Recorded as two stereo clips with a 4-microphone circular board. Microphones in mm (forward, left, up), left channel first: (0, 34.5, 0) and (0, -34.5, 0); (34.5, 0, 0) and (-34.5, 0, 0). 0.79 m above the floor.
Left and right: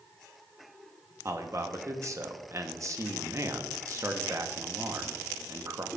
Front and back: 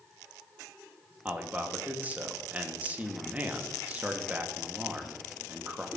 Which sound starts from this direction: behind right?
A man speaking, at 1.2 s.